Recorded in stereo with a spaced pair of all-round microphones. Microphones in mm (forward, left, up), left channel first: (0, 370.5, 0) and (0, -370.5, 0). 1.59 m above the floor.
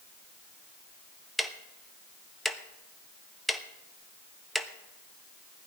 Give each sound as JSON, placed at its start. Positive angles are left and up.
{"t": 1.4, "sound": "ticking", "side_deg": 0, "distance_m": 1.0}